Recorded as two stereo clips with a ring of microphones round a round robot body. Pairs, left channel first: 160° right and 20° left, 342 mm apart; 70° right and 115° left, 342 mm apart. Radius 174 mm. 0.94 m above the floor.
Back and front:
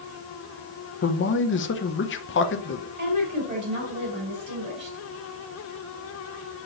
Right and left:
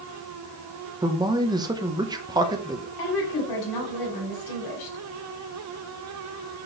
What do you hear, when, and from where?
1.0 s a man speaking: 175° right, 0.8 m
3.0 s a woman speaking: 50° right, 4 m